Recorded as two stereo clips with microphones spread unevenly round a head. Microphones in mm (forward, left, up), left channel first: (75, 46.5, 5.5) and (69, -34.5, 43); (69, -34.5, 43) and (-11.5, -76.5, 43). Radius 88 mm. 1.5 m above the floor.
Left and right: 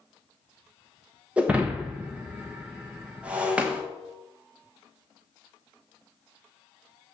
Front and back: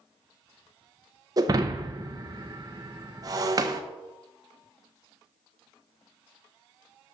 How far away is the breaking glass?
About 0.8 m.